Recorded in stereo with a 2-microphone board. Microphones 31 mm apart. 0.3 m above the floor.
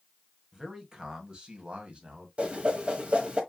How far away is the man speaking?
About 1.7 m.